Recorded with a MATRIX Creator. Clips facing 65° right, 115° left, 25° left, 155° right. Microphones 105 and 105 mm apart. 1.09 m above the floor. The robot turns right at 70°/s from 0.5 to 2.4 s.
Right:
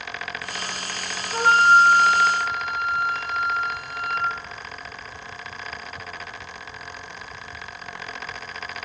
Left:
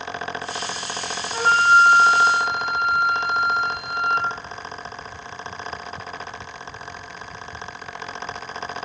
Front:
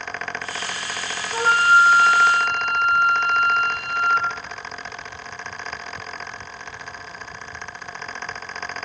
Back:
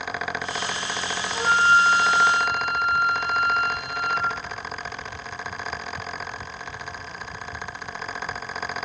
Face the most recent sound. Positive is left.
turn(degrees=80)